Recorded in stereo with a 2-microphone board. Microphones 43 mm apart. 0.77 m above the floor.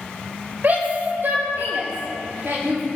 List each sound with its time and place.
0.6 s a shout: 50° right (ahead or behind), 4.5 m; by 2.8 s 80° right, 5.5 m